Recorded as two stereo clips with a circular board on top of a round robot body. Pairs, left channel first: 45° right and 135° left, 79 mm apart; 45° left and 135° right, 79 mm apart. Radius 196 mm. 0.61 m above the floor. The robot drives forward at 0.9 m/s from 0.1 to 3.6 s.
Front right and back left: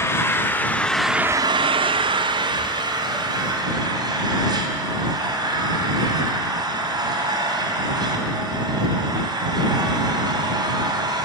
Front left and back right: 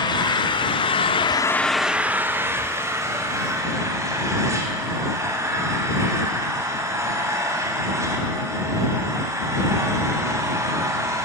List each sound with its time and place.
0.0 s an engine running: 15° left, 1.2 m; by 11.2 s 170° left, 2 m